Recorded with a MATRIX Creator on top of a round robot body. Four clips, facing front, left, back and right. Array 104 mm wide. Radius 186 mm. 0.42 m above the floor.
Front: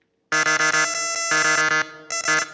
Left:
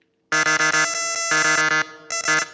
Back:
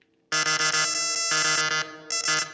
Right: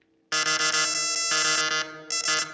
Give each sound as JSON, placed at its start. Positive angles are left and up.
{"t": 0.3, "sound": "an alarm", "azimuth_deg": 50, "distance_m": 0.6}